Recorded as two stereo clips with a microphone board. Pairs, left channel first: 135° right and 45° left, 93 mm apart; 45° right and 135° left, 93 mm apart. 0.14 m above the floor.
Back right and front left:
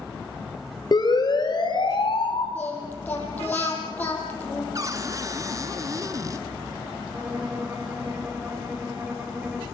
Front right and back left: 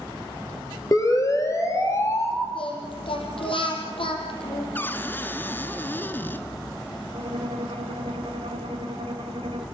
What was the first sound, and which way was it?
A siren, 95° right.